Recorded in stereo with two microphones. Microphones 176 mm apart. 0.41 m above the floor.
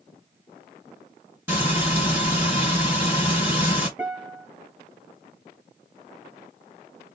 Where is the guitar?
5° right (ahead or behind), 1.8 m.